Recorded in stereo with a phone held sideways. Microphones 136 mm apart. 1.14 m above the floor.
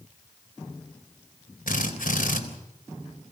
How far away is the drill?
About 3.5 m.